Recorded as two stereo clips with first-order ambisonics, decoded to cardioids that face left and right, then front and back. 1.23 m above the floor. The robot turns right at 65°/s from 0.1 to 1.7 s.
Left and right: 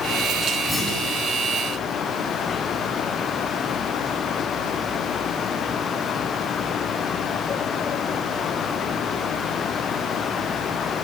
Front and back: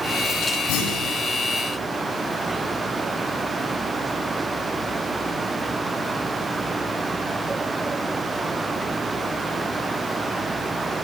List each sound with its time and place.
0.7 s a clunk: straight ahead, 9.5 m; by 1.2 s 30° left, 9.5 m